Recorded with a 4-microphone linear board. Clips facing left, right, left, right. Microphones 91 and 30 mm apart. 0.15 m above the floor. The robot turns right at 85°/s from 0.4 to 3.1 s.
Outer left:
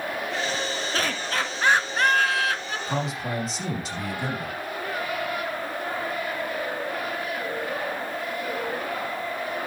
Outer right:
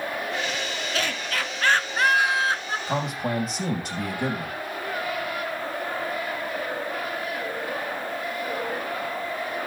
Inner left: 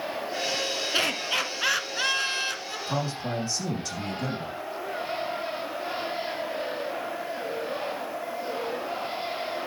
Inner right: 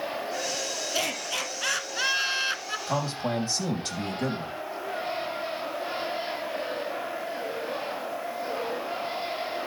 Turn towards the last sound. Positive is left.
turn(degrees=-50)  # may be behind; listen again after turning